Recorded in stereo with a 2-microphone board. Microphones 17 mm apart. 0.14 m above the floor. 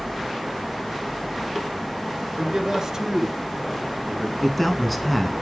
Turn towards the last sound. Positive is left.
turn(degrees=0)  # may be behind; listen again after turning